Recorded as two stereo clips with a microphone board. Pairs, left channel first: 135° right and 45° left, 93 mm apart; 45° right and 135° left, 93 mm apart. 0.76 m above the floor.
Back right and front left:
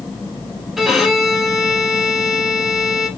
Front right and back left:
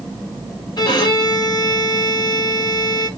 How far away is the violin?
About 1.3 m.